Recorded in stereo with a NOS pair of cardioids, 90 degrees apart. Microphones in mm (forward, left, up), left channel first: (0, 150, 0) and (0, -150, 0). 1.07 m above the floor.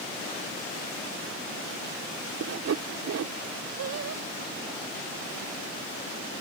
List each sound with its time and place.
2.4 s sawing: 60° right
3.8 s singing: 55° right